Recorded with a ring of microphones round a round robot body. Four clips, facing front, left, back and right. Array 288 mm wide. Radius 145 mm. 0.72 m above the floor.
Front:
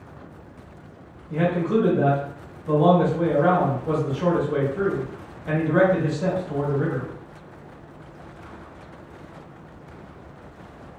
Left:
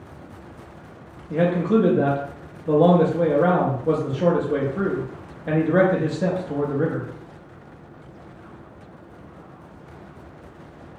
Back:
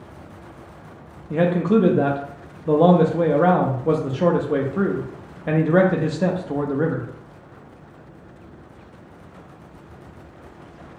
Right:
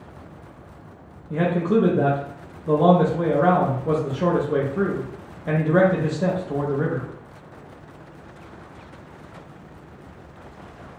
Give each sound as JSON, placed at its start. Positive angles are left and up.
{"t": 1.3, "sound": "a man speaking", "azimuth_deg": 180, "distance_m": 0.5}